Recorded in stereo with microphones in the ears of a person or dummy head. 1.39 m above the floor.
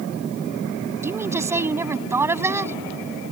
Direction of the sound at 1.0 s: 10° right (ahead or behind).